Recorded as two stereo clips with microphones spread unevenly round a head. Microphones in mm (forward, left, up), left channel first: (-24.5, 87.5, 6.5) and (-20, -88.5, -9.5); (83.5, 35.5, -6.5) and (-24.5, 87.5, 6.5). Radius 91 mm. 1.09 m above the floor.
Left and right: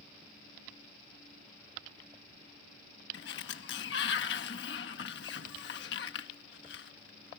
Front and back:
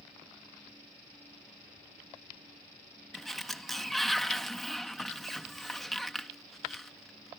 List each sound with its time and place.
3.1 s a sliding door: 60° left